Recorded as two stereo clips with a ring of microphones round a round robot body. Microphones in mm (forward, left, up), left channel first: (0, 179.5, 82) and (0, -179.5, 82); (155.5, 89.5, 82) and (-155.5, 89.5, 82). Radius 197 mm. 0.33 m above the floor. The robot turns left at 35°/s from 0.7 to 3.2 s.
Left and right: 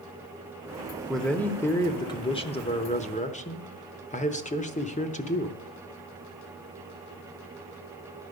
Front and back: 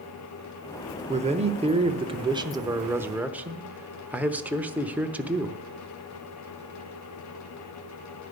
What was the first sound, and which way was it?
A man speaking, 175° left.